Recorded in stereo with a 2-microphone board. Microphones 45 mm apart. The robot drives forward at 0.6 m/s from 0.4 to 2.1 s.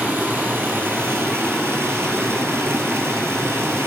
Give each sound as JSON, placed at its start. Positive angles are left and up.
{"t": 0.0, "sound": "running water", "side_deg": -55, "distance_m": 1.5}